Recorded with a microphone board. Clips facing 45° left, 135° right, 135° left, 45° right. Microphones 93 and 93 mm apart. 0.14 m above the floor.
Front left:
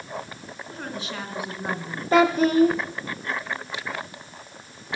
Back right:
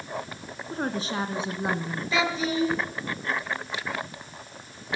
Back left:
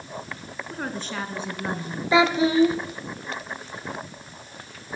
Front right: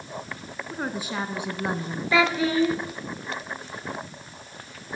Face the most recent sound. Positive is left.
turn(degrees=70)